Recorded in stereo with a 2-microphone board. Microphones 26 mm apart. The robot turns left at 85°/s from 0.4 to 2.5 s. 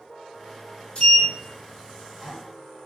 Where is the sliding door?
35° left (ahead or behind), 2.0 m; by 2.3 s centre (ahead or behind), 2.0 m.